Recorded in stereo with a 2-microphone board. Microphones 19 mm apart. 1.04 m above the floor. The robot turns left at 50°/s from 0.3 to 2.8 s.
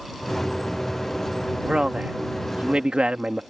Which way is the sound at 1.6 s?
50° right.